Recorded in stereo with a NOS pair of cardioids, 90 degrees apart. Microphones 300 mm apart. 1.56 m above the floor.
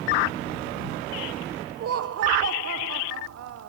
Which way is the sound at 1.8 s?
55° right.